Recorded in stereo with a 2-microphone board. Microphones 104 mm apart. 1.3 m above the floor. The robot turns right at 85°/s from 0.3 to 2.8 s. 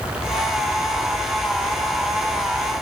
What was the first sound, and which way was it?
Only background noise.